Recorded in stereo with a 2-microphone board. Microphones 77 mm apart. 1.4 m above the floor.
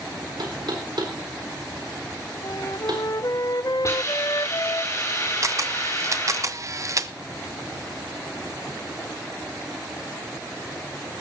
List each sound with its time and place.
0.4 s knocking: 65° right (ahead or behind), 3.5 m
2.4 s a flute: 50° left (ahead or behind), 0.9 m
3.8 s a hiss: 40° left (ahead or behind), 9.5 m
5.4 s a camera shutter: 40° right (ahead or behind), 0.8 m